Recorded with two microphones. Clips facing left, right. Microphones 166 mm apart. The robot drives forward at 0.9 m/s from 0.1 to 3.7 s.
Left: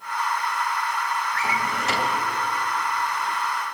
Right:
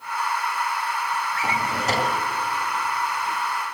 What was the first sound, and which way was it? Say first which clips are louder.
A drawer: right 1 dB; 25° right (ahead or behind).